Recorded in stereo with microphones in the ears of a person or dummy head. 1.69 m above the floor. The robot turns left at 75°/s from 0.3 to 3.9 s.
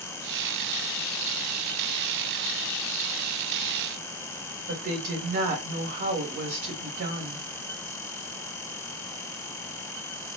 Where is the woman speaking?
50° right (ahead or behind), 1.3 m.